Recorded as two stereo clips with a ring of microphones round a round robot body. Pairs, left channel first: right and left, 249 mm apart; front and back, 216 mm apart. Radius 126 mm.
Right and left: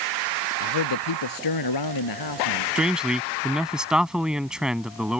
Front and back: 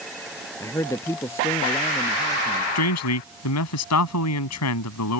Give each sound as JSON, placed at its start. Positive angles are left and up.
{"t": 0.6, "sound": "a man speaking", "azimuth_deg": -80}
{"t": 2.8, "sound": "a man speaking", "azimuth_deg": 0}